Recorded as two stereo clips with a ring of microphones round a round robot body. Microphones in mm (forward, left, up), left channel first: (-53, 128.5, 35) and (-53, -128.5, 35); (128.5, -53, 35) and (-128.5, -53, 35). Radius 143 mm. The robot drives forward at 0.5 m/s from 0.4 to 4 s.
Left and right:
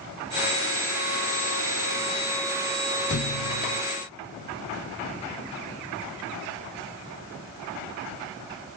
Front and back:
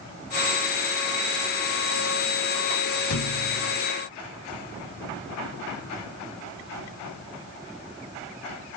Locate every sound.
3.1 s a thud: 40° left, 0.7 m; by 3.8 s 65° left, 0.5 m